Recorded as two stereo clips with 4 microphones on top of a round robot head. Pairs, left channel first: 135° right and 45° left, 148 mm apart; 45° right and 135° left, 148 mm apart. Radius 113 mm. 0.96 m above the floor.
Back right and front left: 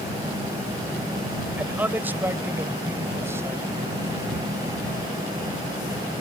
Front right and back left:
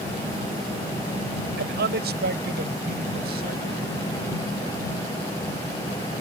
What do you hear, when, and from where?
1.6 s a man speaking: 125° left; by 4.3 s 120° left